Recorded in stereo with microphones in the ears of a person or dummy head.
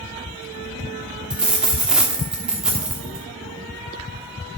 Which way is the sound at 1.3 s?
5° right (ahead or behind).